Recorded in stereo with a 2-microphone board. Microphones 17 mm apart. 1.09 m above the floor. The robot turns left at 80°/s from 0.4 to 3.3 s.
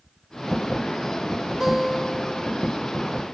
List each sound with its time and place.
1.6 s a guitar: 140° right, 4 m; by 2.5 s 145° left, 4 m